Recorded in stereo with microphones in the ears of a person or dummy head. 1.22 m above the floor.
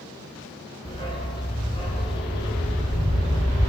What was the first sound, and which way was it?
A dog barking, 25° left (ahead or behind).